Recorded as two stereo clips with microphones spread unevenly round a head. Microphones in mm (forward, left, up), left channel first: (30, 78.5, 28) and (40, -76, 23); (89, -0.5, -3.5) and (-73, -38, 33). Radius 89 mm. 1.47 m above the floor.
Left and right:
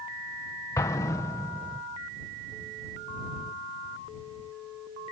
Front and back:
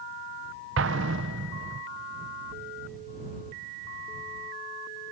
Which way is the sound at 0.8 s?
170° left.